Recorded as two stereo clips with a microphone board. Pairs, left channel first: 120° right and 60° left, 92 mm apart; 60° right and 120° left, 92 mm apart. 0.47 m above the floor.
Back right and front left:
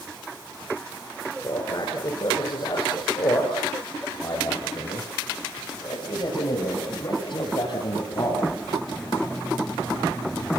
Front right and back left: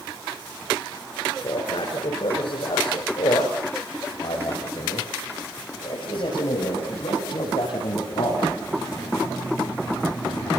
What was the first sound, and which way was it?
A man speaking, 95° right.